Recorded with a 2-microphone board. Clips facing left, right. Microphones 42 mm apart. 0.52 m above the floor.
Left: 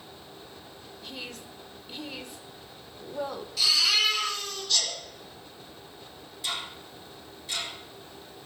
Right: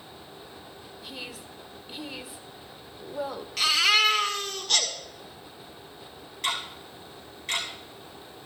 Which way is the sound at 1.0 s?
5° right (ahead or behind).